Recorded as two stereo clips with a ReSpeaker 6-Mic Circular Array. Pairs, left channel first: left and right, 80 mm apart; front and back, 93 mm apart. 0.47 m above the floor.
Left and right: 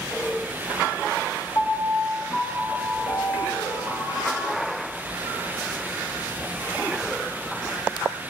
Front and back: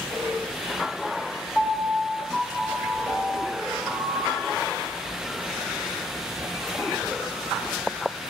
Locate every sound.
1.6 s a piano: 80° left, 1.5 m